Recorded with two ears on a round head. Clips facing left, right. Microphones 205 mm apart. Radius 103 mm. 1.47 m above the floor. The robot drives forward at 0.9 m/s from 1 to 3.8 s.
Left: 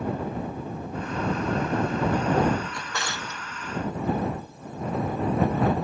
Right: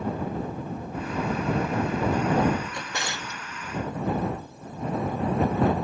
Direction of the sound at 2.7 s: 20° right (ahead or behind).